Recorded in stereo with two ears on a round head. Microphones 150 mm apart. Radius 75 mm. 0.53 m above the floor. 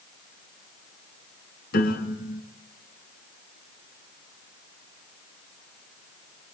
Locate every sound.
1.7 s a piano: 65° left (ahead or behind), 4 m